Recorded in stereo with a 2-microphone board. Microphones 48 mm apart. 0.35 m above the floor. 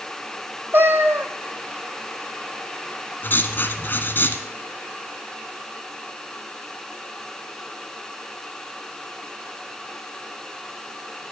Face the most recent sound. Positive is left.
turn(degrees=45)  # may be behind; listen again after turning